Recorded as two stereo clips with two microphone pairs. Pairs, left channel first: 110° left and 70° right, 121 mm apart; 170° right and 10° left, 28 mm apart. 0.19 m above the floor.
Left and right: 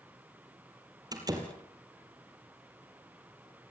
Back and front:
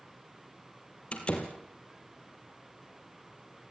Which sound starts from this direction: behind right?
A door slam, at 1.1 s.